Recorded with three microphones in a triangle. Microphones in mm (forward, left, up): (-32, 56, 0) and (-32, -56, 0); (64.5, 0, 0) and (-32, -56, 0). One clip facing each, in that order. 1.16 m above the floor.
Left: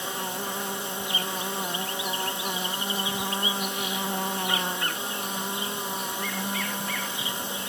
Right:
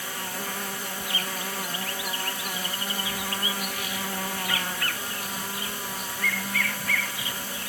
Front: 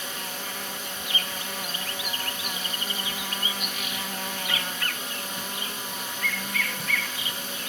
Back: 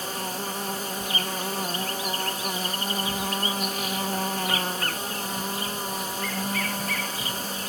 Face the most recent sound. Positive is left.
turn(degrees=155)